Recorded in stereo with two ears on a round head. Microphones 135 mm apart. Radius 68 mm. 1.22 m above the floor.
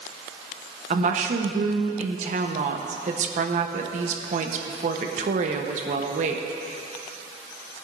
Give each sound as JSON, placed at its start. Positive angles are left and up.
{"t": 0.9, "sound": "a woman speaking", "side_deg": -50, "distance_m": 1.1}